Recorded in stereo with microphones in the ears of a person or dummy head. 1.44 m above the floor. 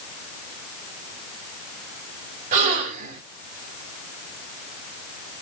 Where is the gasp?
50° right (ahead or behind), 2.0 m.